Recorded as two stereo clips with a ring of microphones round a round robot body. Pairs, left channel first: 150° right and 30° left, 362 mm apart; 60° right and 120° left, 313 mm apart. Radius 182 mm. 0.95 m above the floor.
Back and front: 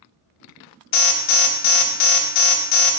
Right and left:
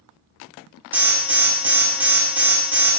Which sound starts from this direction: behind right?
An alarm, at 0.9 s.